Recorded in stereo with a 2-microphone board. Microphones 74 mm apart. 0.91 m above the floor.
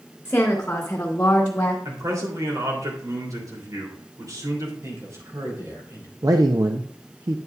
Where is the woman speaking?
20° left (ahead or behind), 2 m; by 1.8 s 25° left (ahead or behind), 1.2 m.